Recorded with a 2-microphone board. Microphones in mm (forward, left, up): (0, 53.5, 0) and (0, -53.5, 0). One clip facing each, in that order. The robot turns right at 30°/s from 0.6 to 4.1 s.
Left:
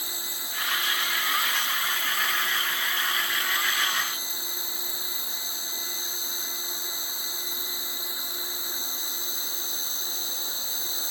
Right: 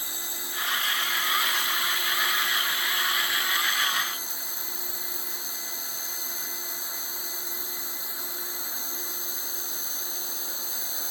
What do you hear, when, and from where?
0.0 s an insect: 150° right; by 11.1 s 45° right